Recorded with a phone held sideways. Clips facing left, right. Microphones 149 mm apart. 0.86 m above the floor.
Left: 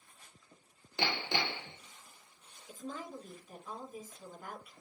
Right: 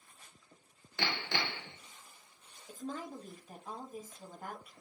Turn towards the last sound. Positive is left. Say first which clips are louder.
# right 2 dB
turn(degrees=-45)  # may be behind; listen again after turning